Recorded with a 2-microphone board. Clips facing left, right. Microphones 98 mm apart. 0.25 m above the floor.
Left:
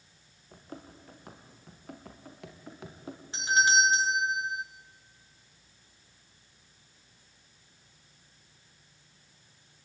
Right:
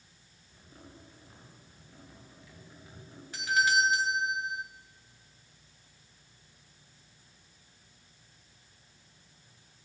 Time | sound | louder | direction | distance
0.5 | running footsteps | left 7 dB | 65° left (ahead or behind) | 5 m
3.3 | a doorbell | left 2 dB | 25° left (ahead or behind) | 1.6 m